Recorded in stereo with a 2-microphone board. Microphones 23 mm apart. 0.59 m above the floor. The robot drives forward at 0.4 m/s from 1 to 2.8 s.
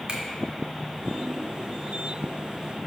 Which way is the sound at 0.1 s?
45° right (ahead or behind).